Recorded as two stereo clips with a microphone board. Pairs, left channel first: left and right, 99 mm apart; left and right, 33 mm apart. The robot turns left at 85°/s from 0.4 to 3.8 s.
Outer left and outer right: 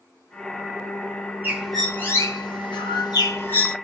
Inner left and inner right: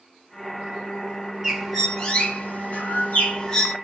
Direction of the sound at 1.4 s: 155° right.